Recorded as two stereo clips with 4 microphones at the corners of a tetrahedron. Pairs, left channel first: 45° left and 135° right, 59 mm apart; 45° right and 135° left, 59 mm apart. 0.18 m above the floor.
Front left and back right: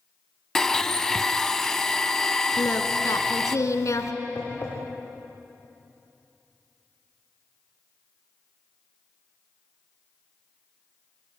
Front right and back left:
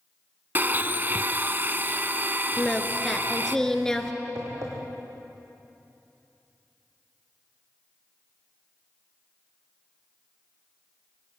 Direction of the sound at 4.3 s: 105° left.